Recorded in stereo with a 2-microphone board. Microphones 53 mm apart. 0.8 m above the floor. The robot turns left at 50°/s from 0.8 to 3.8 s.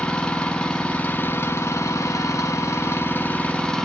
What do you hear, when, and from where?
0.0 s an engine running: 160° left, 1.1 m; by 3.9 s 10° left, 1.1 m